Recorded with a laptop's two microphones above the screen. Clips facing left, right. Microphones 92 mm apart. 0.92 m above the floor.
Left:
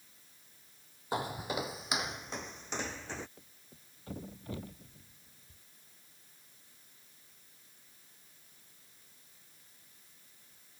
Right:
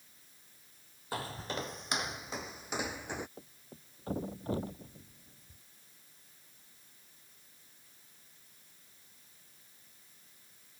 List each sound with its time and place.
1.1 s footsteps: 20° left (ahead or behind); by 3.3 s 15° right (ahead or behind)
3.4 s a thud: 35° right (ahead or behind)